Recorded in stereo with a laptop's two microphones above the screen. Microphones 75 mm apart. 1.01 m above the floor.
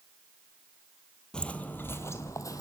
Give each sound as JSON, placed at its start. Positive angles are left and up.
{"t": 1.3, "sound": "footsteps", "side_deg": 10, "distance_m": 1.1}